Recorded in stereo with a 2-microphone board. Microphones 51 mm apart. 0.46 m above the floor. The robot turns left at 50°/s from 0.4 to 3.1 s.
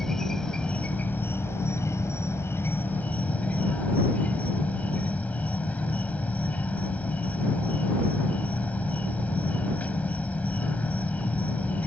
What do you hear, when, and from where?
0.0 s an insect: 170° left; by 11.9 s 35° left